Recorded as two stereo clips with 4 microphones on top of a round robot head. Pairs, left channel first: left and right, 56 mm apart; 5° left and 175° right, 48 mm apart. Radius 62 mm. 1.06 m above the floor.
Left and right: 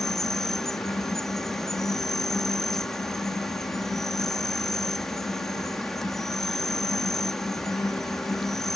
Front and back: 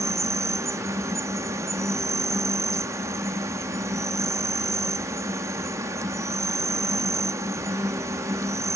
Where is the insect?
175° left.